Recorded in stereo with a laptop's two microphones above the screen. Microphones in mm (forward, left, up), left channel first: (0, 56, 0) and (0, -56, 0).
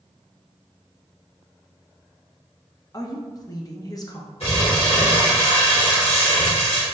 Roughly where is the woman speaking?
Left.